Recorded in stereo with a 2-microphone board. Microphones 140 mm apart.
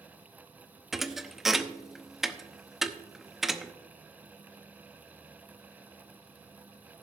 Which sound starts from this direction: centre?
A thud, at 0.9 s.